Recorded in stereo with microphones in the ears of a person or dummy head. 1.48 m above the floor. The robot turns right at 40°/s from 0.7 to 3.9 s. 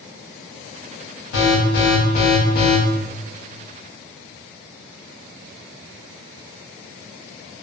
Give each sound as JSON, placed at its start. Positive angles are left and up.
{"t": 1.3, "sound": "an alarm", "azimuth_deg": 100, "distance_m": 1.3}